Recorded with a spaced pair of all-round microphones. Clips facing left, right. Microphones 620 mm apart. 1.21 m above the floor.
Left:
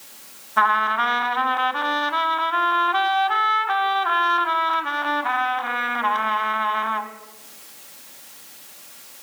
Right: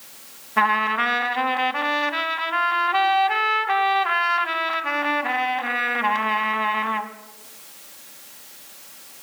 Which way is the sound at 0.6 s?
50° right (ahead or behind).